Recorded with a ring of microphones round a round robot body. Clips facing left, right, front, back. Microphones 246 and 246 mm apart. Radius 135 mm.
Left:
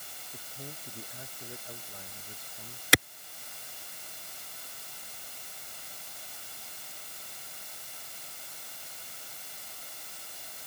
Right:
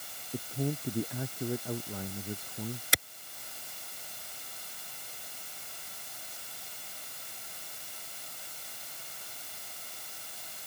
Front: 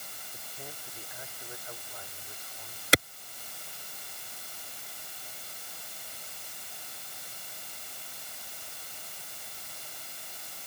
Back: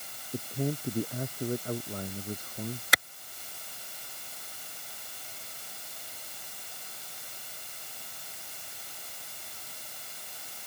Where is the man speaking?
135° right.